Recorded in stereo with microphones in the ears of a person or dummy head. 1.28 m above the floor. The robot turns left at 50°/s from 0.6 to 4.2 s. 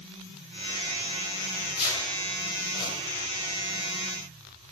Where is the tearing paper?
55° left (ahead or behind), 2.5 m; by 2.9 s 45° left (ahead or behind), 2.5 m.